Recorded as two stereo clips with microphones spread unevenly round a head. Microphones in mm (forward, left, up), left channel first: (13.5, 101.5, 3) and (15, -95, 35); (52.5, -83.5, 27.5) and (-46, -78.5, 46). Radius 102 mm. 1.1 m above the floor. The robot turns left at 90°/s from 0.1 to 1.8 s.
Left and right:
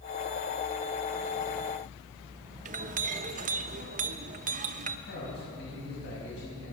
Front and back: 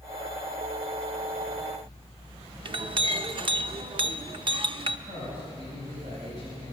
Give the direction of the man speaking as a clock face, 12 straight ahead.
8 o'clock.